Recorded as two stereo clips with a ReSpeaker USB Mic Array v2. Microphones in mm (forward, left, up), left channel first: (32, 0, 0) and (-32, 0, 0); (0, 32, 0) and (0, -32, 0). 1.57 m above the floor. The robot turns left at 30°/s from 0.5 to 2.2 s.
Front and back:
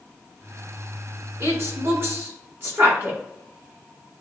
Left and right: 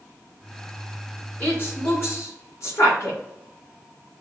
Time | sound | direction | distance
1.4 | a woman speaking | 150° left | 2.5 m